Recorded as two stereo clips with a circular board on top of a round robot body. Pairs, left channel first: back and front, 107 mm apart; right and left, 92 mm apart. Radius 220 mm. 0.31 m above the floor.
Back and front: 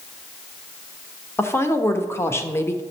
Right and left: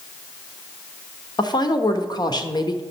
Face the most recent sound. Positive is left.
turn(degrees=-120)